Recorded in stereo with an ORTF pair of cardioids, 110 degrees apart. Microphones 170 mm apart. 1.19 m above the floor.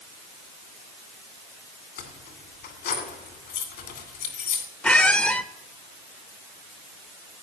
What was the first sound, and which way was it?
Keys jangling, 70° left.